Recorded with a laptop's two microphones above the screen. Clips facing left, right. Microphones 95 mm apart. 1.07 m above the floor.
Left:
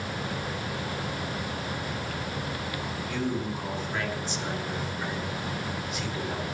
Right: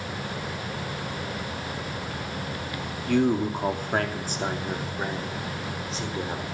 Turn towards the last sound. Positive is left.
turn(degrees=-30)  # may be behind; listen again after turning